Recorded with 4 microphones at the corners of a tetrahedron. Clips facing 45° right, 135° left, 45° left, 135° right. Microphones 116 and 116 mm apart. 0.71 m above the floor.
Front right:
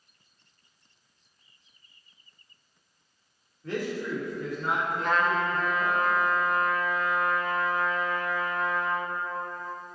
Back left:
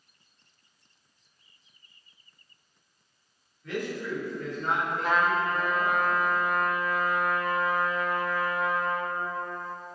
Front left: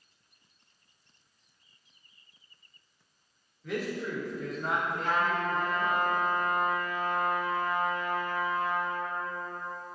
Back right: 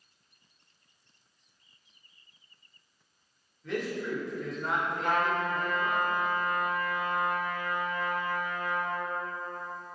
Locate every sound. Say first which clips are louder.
3.6 s a man speaking: front right 1 dB, back right 1 dB; 40° right, 1.3 m; by 6.0 s 140° left, 1.1 m
5.0 s a trumpet: back left 1 dB, back right 1 dB; 140° right, 0.5 m